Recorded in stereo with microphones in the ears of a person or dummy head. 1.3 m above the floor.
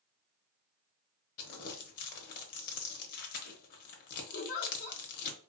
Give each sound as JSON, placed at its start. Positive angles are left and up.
{"t": 1.4, "sound": "crumpling", "side_deg": 50, "distance_m": 0.8}
{"t": 4.3, "sound": "a giggle", "side_deg": 50, "distance_m": 1.0}